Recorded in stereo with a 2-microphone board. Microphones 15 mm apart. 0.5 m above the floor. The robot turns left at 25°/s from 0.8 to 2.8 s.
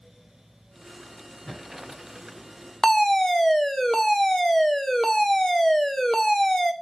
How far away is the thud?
About 8.5 m.